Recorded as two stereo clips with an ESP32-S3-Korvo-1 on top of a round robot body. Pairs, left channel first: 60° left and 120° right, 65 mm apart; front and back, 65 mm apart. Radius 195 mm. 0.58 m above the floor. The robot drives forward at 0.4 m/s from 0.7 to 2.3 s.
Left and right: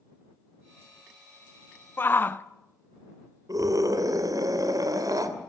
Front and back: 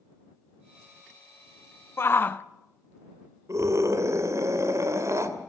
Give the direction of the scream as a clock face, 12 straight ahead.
5 o'clock.